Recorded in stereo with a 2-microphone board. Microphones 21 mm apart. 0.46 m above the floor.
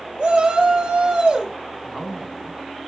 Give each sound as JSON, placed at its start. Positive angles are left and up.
{"t": 0.2, "sound": "a shout", "side_deg": -55, "distance_m": 1.6}
{"t": 1.8, "sound": "a man speaking", "side_deg": 25, "distance_m": 3.5}